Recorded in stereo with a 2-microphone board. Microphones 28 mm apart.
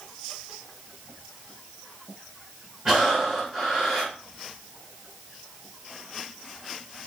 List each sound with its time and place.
2.9 s breathing: 30° right (ahead or behind), 5 m